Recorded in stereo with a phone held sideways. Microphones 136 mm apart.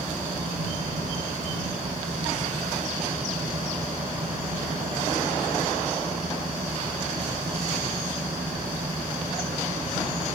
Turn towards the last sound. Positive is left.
turn(degrees=-85)